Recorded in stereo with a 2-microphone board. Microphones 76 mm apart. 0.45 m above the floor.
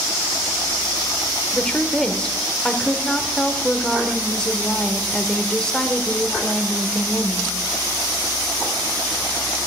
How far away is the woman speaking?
About 1.1 m.